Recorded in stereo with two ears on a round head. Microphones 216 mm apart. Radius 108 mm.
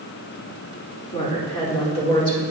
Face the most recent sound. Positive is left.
turn(degrees=25)  # may be behind; listen again after turning